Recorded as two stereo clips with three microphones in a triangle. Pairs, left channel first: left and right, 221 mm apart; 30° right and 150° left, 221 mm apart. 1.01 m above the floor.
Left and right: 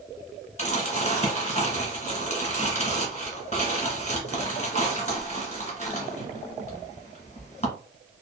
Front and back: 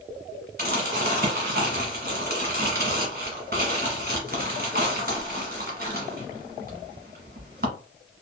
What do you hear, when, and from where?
0.6 s crumpling: 135° left, 1.2 m